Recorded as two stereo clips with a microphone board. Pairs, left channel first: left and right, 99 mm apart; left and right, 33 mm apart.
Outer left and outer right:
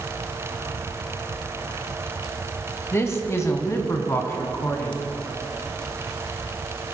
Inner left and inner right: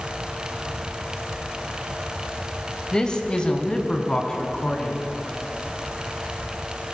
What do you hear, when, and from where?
2.9 s a man speaking: 25° left (ahead or behind), 1.2 m; by 5.0 s 30° left (ahead or behind), 3 m